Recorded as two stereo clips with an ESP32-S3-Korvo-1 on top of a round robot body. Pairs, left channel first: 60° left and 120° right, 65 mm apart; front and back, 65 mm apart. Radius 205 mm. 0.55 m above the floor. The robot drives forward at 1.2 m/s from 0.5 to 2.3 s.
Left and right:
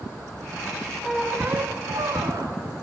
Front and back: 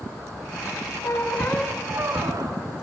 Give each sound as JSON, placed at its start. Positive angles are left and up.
{"t": 1.0, "sound": "a squeak", "azimuth_deg": -30, "distance_m": 1.0}